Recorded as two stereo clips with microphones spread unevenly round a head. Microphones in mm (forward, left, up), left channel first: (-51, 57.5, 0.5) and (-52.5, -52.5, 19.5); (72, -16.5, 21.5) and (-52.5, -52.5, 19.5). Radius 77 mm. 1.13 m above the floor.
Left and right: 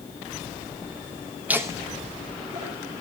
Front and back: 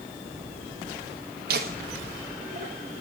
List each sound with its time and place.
1.5 s laughter: 170° right, 0.8 m; by 3.0 s 135° right, 3 m